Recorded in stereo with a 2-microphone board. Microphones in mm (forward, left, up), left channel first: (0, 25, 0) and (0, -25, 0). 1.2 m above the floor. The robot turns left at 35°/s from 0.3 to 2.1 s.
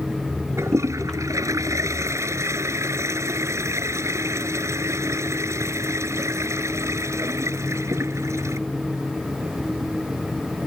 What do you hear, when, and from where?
0.6 s a toilet flushing: 60° right; by 8.6 s 115° right